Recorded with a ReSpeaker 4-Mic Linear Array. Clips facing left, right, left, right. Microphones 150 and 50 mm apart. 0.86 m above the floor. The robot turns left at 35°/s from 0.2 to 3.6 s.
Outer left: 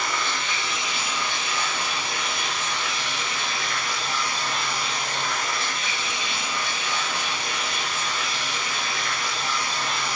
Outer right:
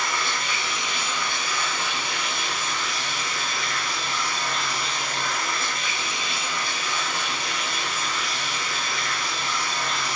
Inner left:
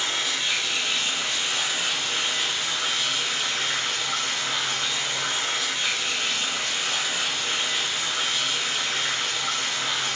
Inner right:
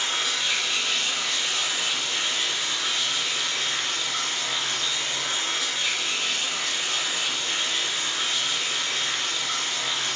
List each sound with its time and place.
0.0 s running water: 160° right, 2.5 m; by 10.2 s 80° left, 2.5 m